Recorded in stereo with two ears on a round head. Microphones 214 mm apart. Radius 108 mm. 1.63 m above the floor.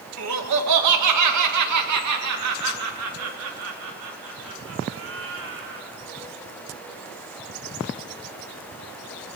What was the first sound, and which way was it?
Laughter, 70° right (ahead or behind).